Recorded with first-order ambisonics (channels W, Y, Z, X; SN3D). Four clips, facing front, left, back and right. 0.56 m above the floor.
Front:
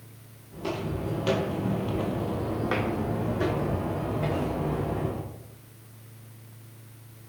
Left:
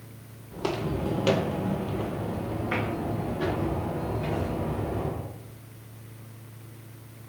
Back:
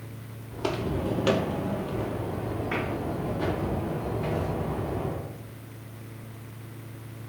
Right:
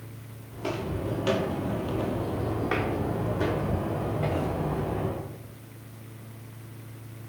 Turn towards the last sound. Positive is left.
turn(degrees=-40)